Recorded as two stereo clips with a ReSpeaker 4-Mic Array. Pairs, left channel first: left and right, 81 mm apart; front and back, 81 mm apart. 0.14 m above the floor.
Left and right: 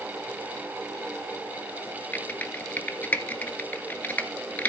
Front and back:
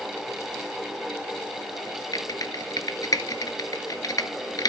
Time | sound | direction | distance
2.1 | typing on a keyboard | 25° left | 0.7 m